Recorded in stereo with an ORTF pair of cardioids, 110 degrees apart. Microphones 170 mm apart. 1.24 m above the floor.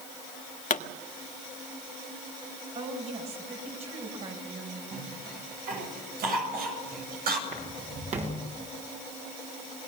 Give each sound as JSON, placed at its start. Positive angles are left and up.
{"t": 0.7, "sound": "a pop", "azimuth_deg": 50, "distance_m": 1.6}
{"t": 2.8, "sound": "a woman speaking", "azimuth_deg": -40, "distance_m": 7.0}
{"t": 4.9, "sound": "a cough", "azimuth_deg": -60, "distance_m": 7.0}
{"t": 7.5, "sound": "footsteps", "azimuth_deg": -40, "distance_m": 7.5}